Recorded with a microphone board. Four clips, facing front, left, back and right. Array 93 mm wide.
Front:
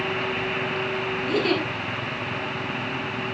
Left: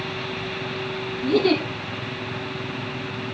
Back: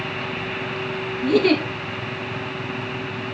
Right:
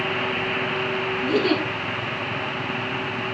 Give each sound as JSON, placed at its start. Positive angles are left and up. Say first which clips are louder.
{"t": 1.2, "sound": "a giggle", "louder": "left 3 dB, back 7 dB", "azimuth_deg": -175, "distance_m": 3.0}